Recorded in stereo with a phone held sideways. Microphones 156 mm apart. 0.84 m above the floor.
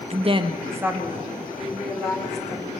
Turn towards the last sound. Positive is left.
turn(degrees=5)  # may be behind; listen again after turning